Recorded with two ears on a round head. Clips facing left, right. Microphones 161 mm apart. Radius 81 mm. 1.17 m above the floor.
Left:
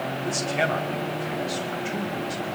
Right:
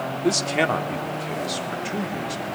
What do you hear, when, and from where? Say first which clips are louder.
0.2 s a man speaking: right 5 dB; 80° right, 2 m; by 2.6 s 40° right (ahead or behind), 4.5 m